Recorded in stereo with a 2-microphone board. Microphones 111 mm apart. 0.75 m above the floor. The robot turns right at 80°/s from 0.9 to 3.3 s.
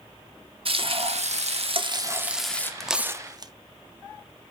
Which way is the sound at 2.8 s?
5° left (ahead or behind).